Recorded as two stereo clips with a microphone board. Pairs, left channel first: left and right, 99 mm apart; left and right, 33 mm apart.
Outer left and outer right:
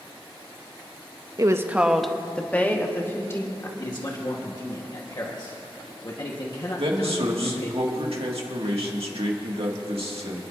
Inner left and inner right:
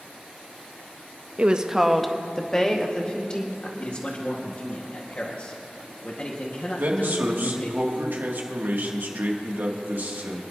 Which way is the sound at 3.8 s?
40° left (ahead or behind).